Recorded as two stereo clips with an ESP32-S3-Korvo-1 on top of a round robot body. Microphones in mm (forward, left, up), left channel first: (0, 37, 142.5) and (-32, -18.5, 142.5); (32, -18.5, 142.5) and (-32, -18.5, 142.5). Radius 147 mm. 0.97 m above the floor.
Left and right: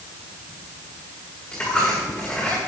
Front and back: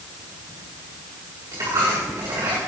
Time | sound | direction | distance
1.5 | a dropped coin | 130° left | 6.5 m